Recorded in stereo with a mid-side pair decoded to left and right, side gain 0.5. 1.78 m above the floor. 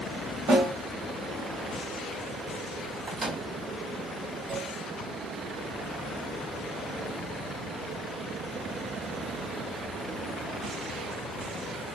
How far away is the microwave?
About 2.5 m.